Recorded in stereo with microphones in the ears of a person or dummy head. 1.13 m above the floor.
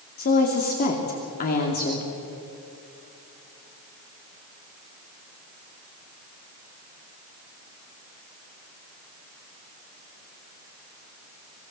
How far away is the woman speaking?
About 2.5 m.